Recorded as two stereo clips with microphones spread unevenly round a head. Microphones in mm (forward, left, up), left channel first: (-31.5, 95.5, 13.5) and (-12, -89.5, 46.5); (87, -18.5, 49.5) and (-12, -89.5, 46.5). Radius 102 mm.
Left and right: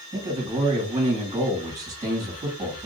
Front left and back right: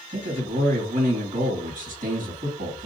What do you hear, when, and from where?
0.1 s a man speaking: 150° right, 1.9 m